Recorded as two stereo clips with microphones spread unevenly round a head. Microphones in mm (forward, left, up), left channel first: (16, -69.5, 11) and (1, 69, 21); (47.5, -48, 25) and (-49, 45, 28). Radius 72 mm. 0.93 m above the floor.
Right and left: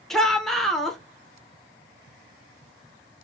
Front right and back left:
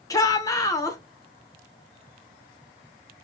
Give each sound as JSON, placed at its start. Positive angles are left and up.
{"t": 0.1, "sound": "a shout", "azimuth_deg": -5, "distance_m": 0.7}